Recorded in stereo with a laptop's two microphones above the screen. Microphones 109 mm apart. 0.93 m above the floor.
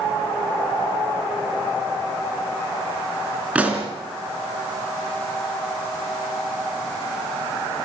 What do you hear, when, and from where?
3.5 s a pop: 10° right (ahead or behind), 2.5 m